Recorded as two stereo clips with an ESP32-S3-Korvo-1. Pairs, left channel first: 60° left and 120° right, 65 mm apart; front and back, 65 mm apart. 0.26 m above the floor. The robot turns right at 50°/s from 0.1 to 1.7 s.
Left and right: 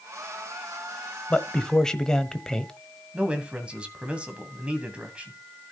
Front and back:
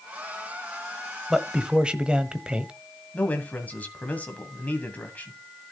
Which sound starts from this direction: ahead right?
A man speaking, at 3.1 s.